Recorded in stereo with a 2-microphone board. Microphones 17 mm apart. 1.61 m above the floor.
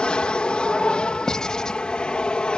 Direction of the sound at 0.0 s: 60° left (ahead or behind).